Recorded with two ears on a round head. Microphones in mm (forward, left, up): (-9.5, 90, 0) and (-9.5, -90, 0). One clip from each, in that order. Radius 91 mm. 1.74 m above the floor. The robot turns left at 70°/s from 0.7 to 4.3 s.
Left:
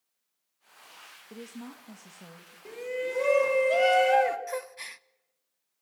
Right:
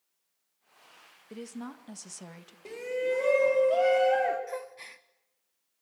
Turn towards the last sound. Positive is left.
turn(degrees=35)  # may be behind; listen again after turning